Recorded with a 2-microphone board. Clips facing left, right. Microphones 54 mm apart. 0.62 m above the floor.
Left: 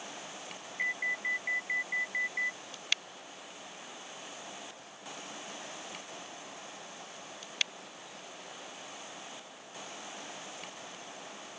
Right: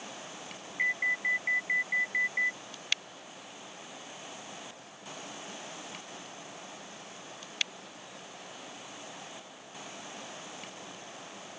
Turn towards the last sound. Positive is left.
turn(degrees=-20)  # may be behind; listen again after turning